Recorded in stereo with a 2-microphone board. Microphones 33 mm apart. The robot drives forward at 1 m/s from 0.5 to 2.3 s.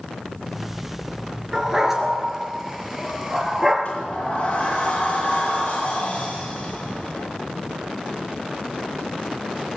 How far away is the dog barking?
About 2 m.